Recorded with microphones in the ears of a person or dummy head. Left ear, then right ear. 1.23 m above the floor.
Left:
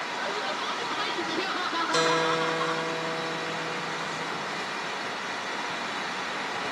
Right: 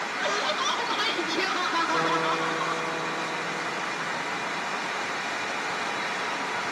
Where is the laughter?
35° right (ahead or behind); by 2.9 s 5° left (ahead or behind).